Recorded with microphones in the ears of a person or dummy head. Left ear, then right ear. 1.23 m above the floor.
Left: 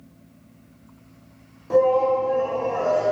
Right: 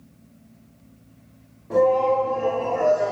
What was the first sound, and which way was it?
A shout, 85° left.